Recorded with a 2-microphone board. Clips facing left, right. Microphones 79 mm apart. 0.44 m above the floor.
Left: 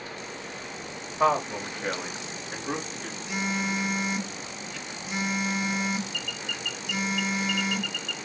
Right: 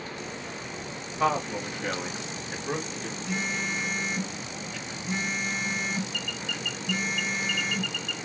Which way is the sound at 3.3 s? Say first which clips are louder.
Left 3 dB; 10° left (ahead or behind).